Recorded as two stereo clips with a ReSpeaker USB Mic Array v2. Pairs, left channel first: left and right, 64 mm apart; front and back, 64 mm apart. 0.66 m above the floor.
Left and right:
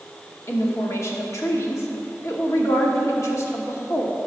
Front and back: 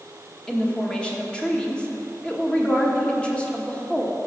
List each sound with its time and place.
0.5 s a woman speaking: 70° left, 1.2 m